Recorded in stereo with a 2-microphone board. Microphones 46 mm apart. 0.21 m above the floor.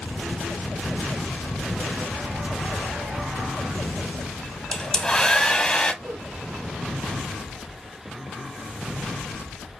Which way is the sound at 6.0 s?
40° right (ahead or behind).